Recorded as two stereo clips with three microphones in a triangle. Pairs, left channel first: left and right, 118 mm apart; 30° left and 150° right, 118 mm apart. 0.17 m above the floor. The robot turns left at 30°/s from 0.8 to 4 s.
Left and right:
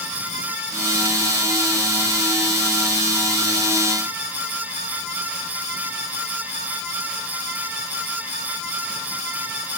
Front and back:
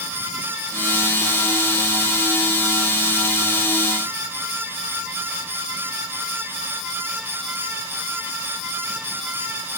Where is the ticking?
No ticking in this recording.